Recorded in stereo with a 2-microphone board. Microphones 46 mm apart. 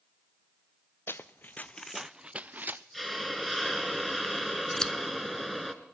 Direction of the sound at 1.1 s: 70° left (ahead or behind).